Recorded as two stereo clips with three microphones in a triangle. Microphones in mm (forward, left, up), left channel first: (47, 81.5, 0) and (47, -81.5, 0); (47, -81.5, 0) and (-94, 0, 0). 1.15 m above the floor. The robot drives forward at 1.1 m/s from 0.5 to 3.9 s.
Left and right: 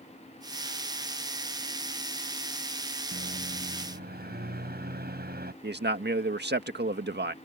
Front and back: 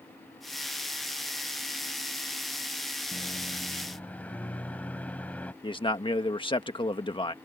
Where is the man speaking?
90° right.